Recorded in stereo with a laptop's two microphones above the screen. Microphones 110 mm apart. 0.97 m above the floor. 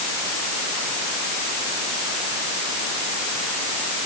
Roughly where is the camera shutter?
I don't hear a camera shutter.